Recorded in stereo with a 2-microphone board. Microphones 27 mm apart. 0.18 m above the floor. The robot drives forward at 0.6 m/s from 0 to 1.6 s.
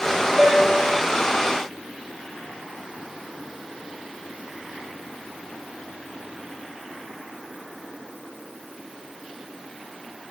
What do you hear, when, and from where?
0.4 s a piano: 30° right (ahead or behind), 2.5 m